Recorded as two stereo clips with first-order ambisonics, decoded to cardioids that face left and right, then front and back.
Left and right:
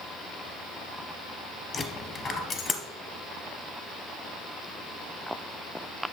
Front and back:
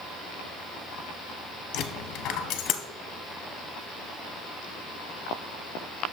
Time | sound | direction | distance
1.7 | a dropped coin | 25° left | 0.8 m